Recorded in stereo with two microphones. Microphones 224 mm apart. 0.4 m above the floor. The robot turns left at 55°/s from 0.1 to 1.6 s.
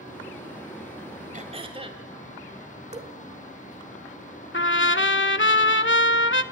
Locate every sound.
1.3 s throat clearing: 40° right (ahead or behind), 1.5 m; by 2.0 s 25° right (ahead or behind), 1.5 m
2.9 s dripping: 30° right (ahead or behind), 1.5 m
4.5 s a trumpet: 65° left (ahead or behind), 0.7 m